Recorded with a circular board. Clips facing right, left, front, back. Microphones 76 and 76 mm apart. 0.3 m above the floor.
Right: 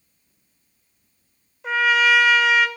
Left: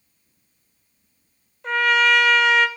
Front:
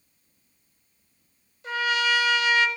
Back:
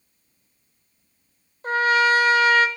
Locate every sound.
1.6 s a trumpet: 175° right, 0.8 m